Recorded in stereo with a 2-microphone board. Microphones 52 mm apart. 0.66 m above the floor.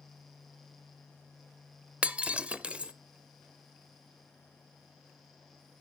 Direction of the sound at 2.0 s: 25° right (ahead or behind).